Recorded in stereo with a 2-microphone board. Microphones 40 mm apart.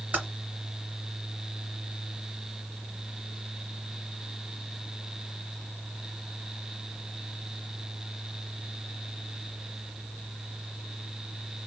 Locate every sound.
0.1 s typing on a keyboard: 40° right (ahead or behind), 1.7 m